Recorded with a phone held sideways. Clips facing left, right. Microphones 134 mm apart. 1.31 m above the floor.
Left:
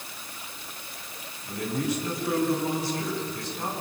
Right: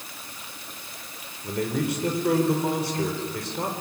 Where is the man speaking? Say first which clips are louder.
Right 3 dB; 65° right (ahead or behind), 4 m.